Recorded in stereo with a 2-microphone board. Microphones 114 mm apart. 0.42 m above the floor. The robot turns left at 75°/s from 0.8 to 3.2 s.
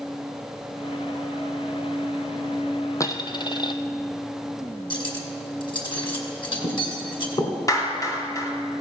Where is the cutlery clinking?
45° left (ahead or behind), 2.5 m.